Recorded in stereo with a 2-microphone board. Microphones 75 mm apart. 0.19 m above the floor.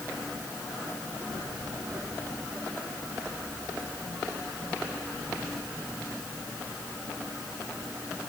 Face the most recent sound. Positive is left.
No sound to turn to.